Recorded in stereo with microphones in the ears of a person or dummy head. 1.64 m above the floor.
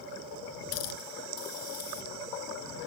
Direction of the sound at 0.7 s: 80° left.